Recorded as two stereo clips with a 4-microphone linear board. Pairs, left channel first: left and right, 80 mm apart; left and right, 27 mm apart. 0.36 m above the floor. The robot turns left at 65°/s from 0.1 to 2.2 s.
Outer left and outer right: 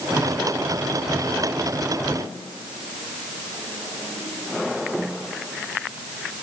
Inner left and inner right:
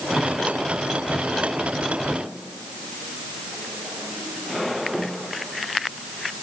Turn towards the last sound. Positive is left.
No sound to turn to.